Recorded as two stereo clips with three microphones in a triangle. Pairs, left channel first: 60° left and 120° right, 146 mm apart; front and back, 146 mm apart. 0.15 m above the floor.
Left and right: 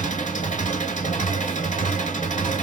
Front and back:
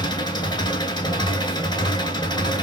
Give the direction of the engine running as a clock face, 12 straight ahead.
10 o'clock.